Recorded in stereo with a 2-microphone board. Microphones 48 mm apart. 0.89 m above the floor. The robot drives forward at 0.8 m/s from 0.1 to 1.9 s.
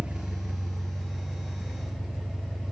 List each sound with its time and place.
0.0 s an engine running: 25° right (ahead or behind), 0.7 m; by 2.7 s 10° right (ahead or behind), 2 m